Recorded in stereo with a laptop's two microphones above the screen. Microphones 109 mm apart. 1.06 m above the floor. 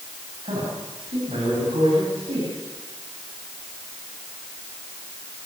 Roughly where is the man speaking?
Right.